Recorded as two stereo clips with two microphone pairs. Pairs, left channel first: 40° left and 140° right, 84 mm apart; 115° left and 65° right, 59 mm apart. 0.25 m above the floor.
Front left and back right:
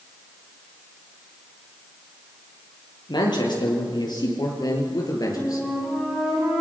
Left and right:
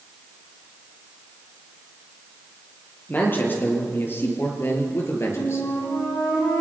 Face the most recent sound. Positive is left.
turn(degrees=125)